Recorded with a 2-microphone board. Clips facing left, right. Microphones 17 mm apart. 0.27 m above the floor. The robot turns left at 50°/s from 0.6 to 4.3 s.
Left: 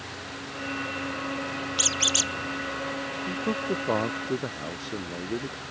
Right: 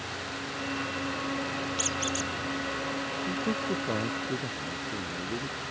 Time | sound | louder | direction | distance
1.8 | a squeak | left 9 dB | 30° left (ahead or behind) | ?
3.3 | a man speaking | left 3 dB | 160° left | ?